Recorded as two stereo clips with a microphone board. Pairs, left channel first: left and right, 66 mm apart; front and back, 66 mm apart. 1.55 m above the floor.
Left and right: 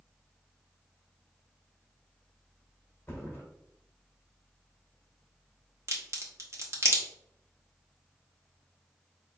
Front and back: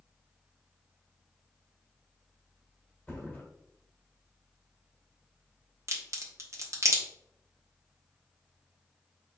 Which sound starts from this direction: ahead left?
A thud, at 3.1 s.